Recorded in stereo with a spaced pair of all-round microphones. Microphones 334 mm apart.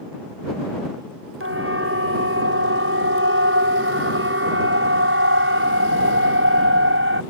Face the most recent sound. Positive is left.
turn(degrees=-35)  # may be behind; listen again after turning